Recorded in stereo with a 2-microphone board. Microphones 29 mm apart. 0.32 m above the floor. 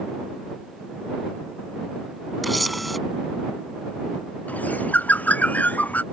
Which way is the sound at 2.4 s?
Centre (ahead or behind).